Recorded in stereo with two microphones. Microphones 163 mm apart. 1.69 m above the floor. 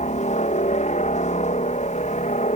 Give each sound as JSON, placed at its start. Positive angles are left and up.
{"t": 0.0, "sound": "a helicopter", "side_deg": 50}